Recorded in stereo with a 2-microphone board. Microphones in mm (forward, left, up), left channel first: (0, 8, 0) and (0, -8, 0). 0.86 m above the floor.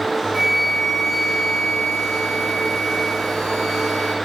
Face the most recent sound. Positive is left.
turn(degrees=0)  # may be behind; listen again after turning